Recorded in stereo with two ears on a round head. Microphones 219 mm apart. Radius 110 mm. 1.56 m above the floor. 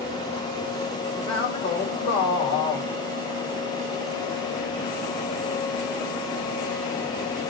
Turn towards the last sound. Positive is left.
turn(degrees=20)  # may be behind; listen again after turning